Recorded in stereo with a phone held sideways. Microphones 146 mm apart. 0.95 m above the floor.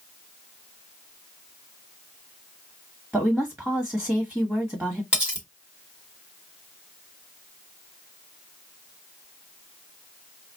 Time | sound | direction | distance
3.1 | a woman speaking | centre (ahead or behind) | 1.6 m
5.1 | cutlery clinking | 5° right (ahead or behind) | 1.4 m